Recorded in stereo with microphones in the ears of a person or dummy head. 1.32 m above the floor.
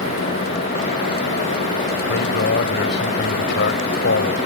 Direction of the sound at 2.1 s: 60° left (ahead or behind).